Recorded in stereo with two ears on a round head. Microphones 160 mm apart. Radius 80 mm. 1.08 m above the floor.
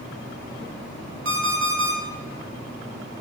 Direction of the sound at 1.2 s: 80° right.